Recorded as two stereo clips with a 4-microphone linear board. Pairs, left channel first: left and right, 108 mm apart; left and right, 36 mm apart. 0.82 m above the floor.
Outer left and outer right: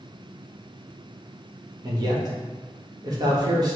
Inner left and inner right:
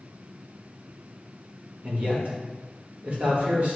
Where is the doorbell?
I don't hear a doorbell.